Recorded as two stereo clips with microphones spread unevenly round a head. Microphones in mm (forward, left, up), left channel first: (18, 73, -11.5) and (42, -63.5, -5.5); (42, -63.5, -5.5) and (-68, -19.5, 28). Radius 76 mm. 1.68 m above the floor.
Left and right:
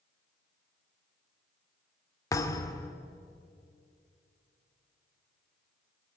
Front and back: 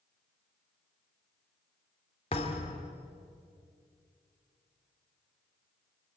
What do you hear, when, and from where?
2.3 s a thud: 40° left, 1.8 m